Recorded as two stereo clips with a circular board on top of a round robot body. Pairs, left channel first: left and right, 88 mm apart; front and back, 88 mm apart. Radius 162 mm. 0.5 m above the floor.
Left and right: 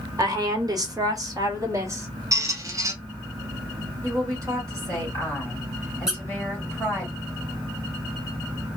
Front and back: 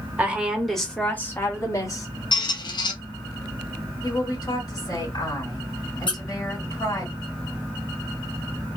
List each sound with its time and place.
0.2 s a woman speaking: 115° right, 1.3 m; by 2.1 s 40° right, 1.7 m
2.3 s a squeak: 35° right, 0.7 m
4.0 s a woman speaking: 45° right, 2.5 m
6.1 s a squeak: 5° right, 1.2 m